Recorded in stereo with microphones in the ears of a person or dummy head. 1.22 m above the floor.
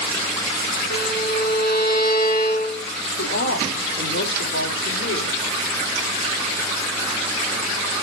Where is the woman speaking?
55° left (ahead or behind), 2 m.